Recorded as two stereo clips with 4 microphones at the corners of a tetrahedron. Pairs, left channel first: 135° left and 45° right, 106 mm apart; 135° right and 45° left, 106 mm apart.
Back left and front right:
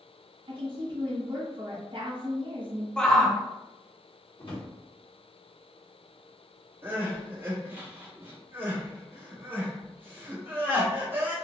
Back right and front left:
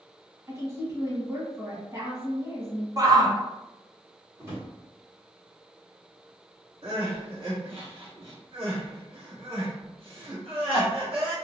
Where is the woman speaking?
15° right, 1.2 m.